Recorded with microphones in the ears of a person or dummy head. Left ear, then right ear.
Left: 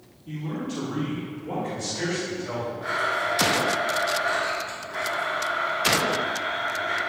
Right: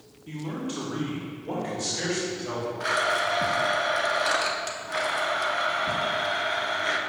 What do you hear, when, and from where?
0.3 s a man speaking: 30° right (ahead or behind), 1.5 m; by 2.7 s 20° right (ahead or behind), 3.5 m
2.8 s a blender: 75° right (ahead or behind), 1.3 m